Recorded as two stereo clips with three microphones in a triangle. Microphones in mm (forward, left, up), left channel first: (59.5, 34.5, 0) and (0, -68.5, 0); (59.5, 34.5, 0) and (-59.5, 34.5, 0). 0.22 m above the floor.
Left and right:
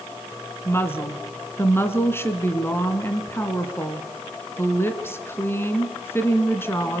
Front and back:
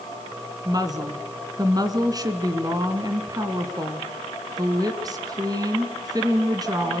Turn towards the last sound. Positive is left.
turn(degrees=130)